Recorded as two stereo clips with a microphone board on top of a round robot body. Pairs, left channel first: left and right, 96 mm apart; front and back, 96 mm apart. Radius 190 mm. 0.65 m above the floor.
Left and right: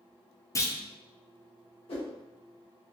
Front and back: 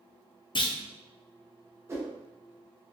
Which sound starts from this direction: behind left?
A whoosh, at 1.9 s.